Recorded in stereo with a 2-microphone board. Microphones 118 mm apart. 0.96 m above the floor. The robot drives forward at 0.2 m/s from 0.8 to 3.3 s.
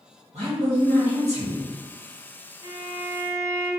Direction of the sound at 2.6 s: 50° left (ahead or behind).